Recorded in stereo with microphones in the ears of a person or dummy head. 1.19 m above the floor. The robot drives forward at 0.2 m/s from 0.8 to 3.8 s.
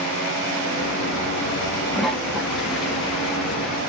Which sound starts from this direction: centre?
A toilet flushing, at 1.9 s.